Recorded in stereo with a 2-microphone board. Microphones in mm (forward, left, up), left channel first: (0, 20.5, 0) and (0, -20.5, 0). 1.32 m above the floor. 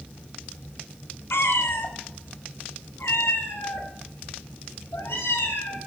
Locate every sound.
1.3 s a cat meowing: 70° left (ahead or behind), 1.8 m